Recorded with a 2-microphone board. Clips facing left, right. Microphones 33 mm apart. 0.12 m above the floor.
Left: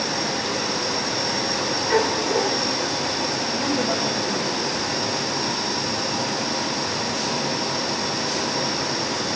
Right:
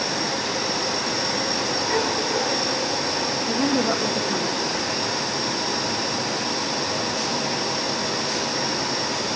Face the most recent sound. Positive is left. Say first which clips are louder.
# right 4 dB
turn(degrees=-75)  # may be behind; listen again after turning